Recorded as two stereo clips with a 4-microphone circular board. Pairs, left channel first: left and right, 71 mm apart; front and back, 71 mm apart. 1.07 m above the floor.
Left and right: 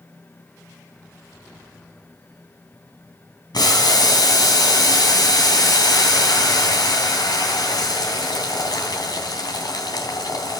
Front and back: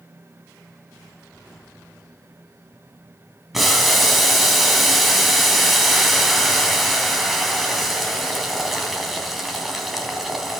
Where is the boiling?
90° left, 3 m.